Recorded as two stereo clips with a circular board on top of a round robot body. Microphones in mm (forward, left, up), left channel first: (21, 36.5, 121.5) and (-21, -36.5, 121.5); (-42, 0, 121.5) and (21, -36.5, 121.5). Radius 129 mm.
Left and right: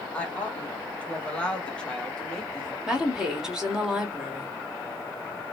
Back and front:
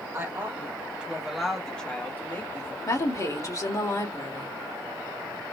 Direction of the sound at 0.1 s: 5° right.